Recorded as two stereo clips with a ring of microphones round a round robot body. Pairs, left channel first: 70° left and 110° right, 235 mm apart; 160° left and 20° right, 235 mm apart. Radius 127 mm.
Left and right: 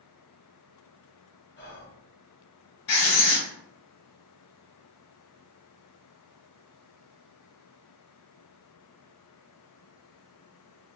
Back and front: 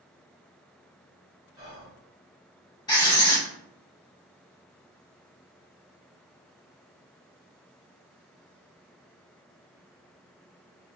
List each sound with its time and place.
1.6 s whispering: 45° left, 1.5 m
2.9 s writing: 80° left, 1.8 m